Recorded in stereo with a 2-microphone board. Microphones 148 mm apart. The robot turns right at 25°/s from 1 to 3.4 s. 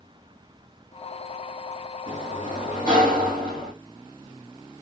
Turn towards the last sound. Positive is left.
turn(degrees=-95)